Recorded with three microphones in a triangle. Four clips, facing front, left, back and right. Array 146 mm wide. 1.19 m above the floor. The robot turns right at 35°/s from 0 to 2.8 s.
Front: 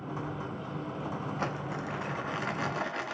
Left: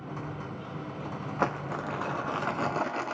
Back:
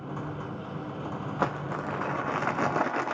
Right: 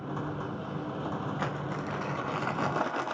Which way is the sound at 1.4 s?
140° left.